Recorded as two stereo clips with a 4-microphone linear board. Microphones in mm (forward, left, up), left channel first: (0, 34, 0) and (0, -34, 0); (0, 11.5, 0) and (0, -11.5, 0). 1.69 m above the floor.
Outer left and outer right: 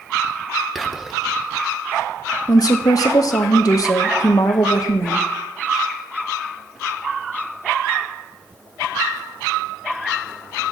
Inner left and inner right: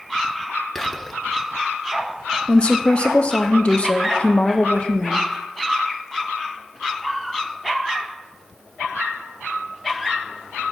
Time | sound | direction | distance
0.8 | whispering | centre (ahead or behind) | 1.3 m
2.5 | a woman speaking | 65° left (ahead or behind) | 0.8 m